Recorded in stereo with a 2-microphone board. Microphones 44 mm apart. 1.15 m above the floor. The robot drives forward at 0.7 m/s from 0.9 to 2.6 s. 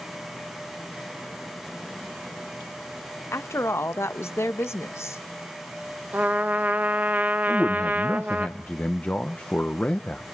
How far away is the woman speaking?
About 0.9 m.